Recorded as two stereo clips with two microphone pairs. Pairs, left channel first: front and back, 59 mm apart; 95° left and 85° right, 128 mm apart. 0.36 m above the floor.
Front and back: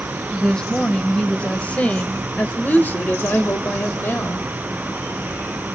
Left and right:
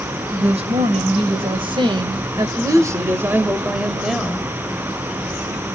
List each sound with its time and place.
0.3 s a woman speaking: 75° right, 2.5 m; by 4.5 s 15° left, 1.7 m